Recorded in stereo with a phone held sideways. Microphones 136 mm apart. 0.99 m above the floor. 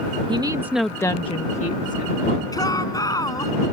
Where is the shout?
25° left (ahead or behind).